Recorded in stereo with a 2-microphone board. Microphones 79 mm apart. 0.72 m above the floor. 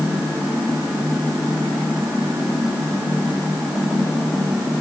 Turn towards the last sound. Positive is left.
No sound to turn to.